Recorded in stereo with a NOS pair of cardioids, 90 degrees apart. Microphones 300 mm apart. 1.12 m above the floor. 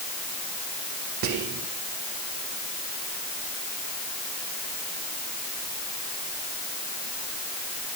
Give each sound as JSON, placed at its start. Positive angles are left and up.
{"t": 1.2, "sound": "whispering", "azimuth_deg": -70, "distance_m": 0.7}